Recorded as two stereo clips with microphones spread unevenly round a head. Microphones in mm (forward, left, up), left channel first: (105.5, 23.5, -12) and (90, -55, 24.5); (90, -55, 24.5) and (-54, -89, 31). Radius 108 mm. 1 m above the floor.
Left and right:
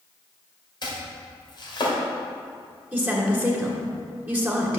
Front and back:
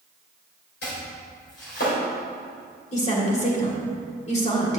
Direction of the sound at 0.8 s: 50° left.